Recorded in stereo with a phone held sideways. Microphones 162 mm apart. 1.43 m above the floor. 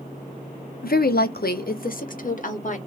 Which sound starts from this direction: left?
A woman speaking, at 0.8 s.